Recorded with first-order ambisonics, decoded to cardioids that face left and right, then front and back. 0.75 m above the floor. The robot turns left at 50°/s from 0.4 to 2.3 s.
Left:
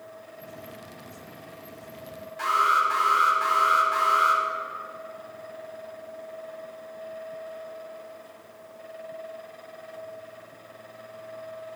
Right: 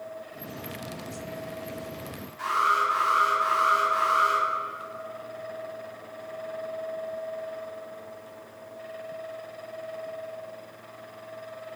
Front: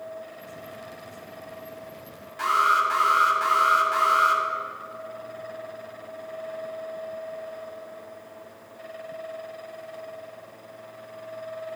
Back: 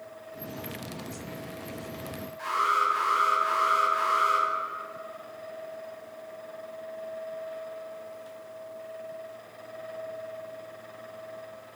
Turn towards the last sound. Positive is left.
turn(degrees=15)